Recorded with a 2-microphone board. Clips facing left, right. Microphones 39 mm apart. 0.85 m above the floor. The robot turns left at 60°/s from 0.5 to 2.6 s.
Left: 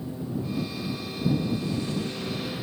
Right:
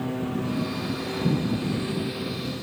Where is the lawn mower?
65° right; by 2.6 s 165° left.